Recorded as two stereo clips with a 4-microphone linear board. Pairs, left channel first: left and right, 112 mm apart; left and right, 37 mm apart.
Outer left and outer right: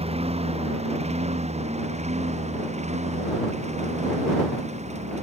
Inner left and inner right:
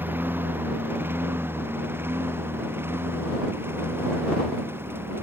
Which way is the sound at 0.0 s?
65° right (ahead or behind).